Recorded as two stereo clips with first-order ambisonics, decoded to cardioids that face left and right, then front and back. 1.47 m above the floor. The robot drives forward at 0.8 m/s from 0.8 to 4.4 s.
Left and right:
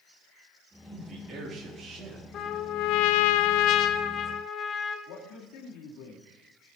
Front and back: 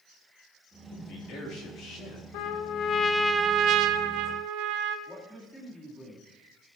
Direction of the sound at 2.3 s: 35° left.